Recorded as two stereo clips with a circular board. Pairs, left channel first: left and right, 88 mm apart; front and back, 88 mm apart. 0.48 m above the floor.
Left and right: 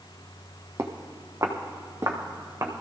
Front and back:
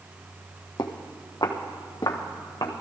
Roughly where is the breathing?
No breathing in this recording.